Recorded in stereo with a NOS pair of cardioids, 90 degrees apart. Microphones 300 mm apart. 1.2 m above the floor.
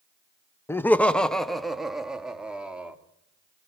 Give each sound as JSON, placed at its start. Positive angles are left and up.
{"t": 0.7, "sound": "laughter", "azimuth_deg": 10, "distance_m": 0.9}